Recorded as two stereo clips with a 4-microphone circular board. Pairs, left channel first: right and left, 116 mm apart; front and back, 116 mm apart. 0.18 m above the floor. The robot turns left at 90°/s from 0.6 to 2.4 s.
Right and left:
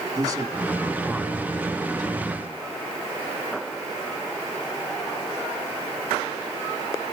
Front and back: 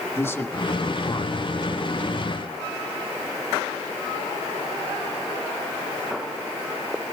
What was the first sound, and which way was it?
A man speaking, 55° left.